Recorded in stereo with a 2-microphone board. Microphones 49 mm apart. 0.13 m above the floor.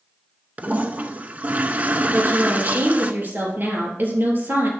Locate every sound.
0.6 s a toilet flushing: 35° right (ahead or behind), 0.6 m
2.1 s a woman speaking: 40° right (ahead or behind), 3 m